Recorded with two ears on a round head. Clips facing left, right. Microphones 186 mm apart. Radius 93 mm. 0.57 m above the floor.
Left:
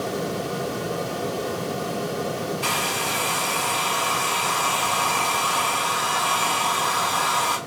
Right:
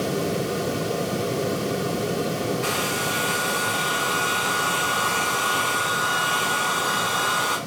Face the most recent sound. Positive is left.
turn(degrees=65)  # may be behind; listen again after turning